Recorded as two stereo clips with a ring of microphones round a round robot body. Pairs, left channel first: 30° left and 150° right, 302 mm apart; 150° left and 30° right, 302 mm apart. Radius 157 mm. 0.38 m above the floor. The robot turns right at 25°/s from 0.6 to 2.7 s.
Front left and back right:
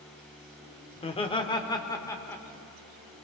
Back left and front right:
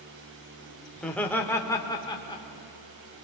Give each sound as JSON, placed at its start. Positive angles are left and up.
{"t": 1.0, "sound": "laughter", "azimuth_deg": 65, "distance_m": 1.0}